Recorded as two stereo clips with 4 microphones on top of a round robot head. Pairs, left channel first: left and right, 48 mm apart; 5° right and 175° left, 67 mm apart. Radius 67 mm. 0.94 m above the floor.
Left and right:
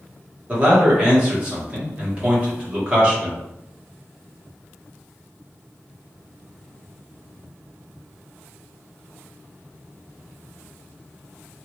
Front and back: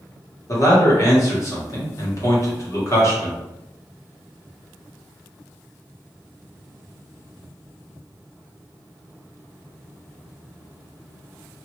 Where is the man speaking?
25° right, 1.4 m.